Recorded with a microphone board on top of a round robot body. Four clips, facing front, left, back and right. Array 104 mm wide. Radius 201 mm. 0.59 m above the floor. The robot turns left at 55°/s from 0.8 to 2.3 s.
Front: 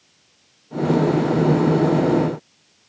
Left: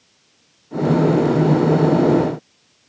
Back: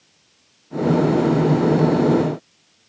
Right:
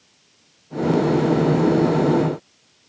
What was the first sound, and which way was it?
Only background noise.